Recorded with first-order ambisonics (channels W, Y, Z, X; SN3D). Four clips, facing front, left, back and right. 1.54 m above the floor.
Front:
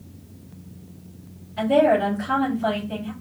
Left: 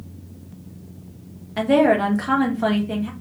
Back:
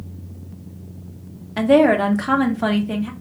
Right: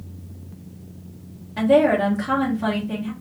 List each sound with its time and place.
1.6 s a woman speaking: 160° left, 1.2 m